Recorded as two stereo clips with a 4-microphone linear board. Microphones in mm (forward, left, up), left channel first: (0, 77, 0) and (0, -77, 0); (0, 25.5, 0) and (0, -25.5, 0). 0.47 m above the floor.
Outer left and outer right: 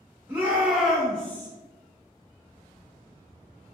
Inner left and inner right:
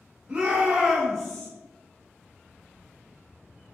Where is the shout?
15° right (ahead or behind), 0.8 m; by 1.5 s 15° left (ahead or behind), 0.9 m.